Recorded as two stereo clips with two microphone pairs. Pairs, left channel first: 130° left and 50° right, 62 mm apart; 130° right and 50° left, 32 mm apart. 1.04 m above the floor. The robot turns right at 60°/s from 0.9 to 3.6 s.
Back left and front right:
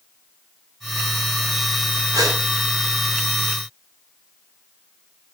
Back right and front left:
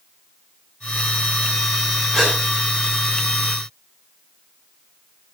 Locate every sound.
2.1 s a gasp: 65° right, 8.5 m; by 2.4 s 50° right, 8.5 m